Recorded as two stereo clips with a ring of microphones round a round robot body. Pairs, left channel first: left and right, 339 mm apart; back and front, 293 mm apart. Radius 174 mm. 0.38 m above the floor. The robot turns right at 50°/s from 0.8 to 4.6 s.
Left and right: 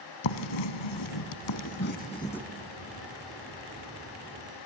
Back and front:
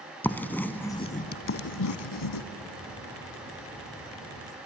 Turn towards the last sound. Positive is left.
turn(degrees=-75)